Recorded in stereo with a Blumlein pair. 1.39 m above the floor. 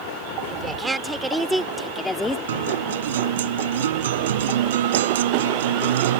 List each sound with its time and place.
0.5 s a woman speaking: 15° right; by 2.4 s 10° left
2.5 s a guitar: 60° right